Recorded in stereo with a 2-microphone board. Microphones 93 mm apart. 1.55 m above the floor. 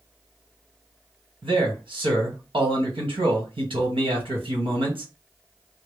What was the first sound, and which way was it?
A man speaking, 70° right (ahead or behind).